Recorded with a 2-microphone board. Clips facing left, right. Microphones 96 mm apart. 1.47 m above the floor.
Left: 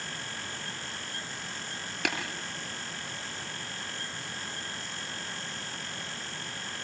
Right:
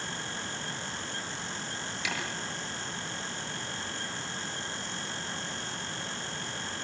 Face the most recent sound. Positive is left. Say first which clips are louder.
# left 5 dB
turn(degrees=60)  # may be behind; listen again after turning